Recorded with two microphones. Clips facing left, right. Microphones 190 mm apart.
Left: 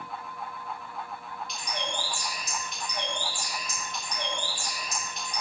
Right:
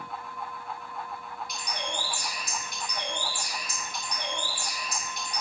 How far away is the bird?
About 3 m.